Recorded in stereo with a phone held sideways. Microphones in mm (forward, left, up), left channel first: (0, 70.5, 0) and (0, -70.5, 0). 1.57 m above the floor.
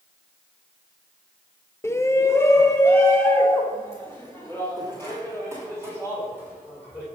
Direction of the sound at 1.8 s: 20° left (ahead or behind).